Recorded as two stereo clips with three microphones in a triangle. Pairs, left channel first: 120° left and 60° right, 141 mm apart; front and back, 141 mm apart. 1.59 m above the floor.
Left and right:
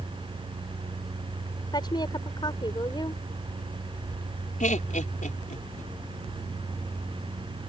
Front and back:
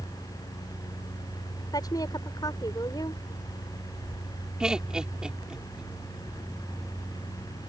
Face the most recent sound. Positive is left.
turn(degrees=95)